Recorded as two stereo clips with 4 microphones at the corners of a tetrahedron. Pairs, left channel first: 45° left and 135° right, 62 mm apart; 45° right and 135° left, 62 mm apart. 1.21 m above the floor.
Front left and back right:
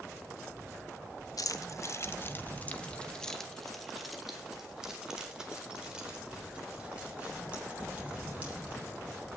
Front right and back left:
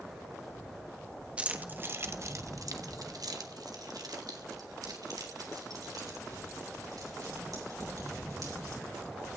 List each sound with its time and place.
1.4 s keys jangling: 65° left, 1.3 m; by 8.8 s 155° left, 6 m